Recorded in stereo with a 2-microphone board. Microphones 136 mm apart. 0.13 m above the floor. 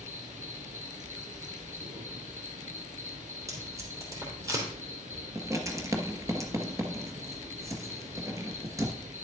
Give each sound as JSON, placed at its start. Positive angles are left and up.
{"t": 0.0, "sound": "an insect", "side_deg": -65, "distance_m": 1.5}
{"t": 3.5, "sound": "tape being pulled", "side_deg": -25, "distance_m": 3.0}
{"t": 5.3, "sound": "writing", "side_deg": -25, "distance_m": 1.3}